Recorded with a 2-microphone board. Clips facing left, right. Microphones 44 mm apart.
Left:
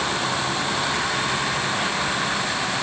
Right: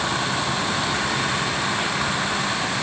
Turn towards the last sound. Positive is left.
No sound to turn to.